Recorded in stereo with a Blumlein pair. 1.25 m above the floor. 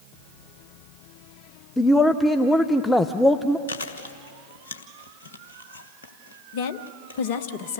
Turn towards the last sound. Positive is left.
turn(degrees=50)